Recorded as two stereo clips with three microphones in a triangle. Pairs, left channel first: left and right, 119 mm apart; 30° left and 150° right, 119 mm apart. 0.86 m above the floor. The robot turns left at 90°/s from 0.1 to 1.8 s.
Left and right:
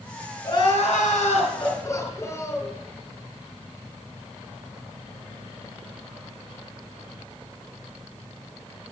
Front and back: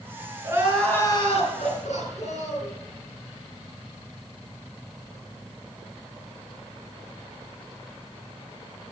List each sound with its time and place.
0.4 s crying: 150° left, 5.5 m; by 2.7 s 25° left, 5.5 m